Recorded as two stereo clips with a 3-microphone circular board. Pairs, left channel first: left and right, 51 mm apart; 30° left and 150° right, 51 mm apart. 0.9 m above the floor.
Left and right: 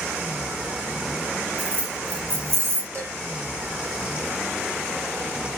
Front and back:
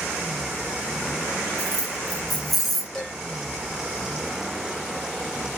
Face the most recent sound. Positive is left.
turn(degrees=-45)